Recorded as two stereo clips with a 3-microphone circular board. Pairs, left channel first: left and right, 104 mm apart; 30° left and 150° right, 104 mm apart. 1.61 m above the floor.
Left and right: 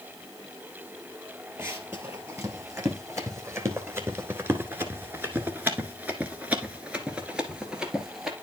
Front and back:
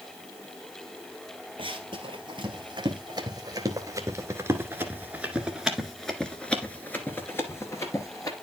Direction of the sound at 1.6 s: 150° right.